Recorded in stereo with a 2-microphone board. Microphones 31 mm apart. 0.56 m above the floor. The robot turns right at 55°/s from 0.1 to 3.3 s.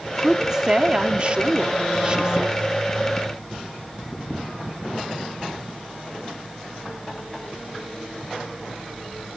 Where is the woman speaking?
160° right, 0.7 m; by 2.5 s 30° right, 0.7 m.